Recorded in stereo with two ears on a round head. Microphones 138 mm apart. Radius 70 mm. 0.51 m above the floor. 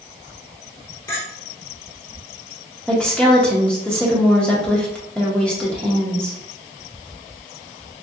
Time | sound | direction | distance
1.1 | a clink | 20° left (ahead or behind) | 0.9 m
2.9 | a woman speaking | 5° left (ahead or behind) | 0.7 m